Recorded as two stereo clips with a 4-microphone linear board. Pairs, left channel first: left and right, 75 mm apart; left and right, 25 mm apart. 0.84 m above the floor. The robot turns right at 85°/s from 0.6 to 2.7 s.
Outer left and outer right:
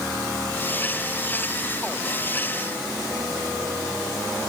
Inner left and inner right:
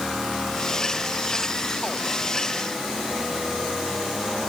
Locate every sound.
Only background noise.